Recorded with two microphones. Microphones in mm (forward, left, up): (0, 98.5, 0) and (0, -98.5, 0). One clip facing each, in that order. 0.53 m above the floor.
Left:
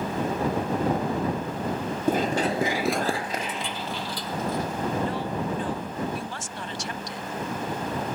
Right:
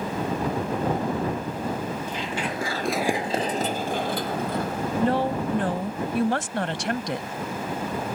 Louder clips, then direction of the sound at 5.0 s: Right 5 dB; 70° right (ahead or behind).